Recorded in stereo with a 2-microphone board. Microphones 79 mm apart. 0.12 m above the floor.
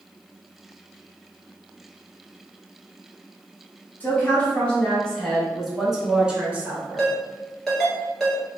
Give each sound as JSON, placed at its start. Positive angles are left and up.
{"t": 4.0, "sound": "a woman speaking", "side_deg": 20, "distance_m": 1.9}
{"t": 7.0, "sound": "a ringtone", "side_deg": 5, "distance_m": 1.4}